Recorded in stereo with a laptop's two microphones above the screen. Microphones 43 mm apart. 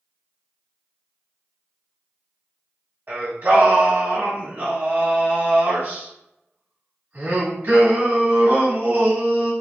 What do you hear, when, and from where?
3.1 s singing: 50° right (ahead or behind), 1.4 m